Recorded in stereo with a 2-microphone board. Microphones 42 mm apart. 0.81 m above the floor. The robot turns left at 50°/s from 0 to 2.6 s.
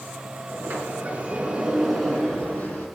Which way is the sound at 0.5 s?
105° right.